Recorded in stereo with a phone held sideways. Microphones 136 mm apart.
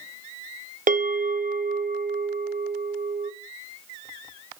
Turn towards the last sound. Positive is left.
turn(degrees=-75)  # may be behind; listen again after turning